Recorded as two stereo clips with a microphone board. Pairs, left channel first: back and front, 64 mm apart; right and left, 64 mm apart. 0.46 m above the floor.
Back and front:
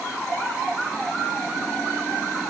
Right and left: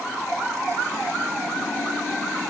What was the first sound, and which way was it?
Only background noise.